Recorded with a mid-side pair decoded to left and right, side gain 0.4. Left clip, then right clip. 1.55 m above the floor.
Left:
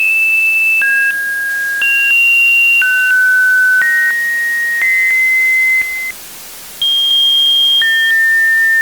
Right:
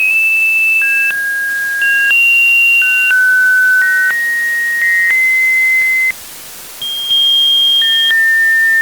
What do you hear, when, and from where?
Only background noise.